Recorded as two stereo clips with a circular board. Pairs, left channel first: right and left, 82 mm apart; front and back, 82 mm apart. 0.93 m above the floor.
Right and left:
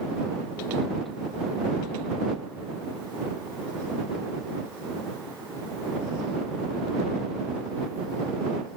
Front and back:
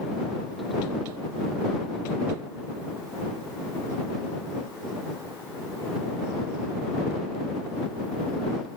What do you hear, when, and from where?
Only background noise.